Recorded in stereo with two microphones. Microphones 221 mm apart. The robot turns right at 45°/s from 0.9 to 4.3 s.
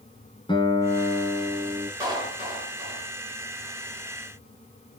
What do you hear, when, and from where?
0.5 s a guitar: 155° left, 2 m; by 1.9 s 160° right, 2 m
2.0 s a clap: 165° right, 6.5 m; by 3.1 s 115° right, 6.5 m